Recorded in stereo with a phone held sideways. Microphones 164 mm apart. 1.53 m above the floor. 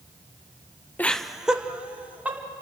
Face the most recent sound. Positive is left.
turn(degrees=-10)  # may be behind; listen again after turning